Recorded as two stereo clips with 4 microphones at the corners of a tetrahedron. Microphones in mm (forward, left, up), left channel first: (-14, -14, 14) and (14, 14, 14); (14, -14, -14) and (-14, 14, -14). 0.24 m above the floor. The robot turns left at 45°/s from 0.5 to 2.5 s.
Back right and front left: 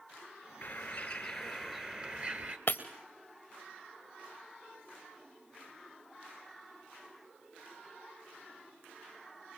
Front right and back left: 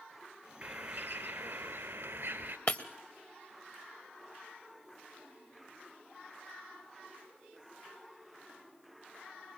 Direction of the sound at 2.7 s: 90° right.